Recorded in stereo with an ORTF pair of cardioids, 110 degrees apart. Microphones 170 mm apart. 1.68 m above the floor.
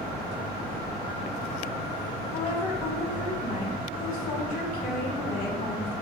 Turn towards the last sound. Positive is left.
turn(degrees=60)